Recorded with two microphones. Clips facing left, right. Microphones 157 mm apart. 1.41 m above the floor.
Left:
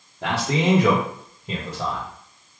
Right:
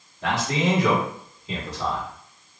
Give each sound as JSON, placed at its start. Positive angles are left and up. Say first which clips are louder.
{"t": 0.2, "sound": "a man speaking", "louder": "left 2 dB", "side_deg": 65, "distance_m": 1.6}